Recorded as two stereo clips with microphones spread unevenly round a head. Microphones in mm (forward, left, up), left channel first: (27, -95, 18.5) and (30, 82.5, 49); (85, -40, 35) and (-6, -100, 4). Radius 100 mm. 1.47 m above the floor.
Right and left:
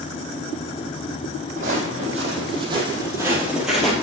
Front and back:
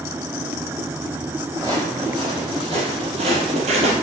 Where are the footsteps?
130° left, 3 m; by 3.9 s 175° left, 2.0 m.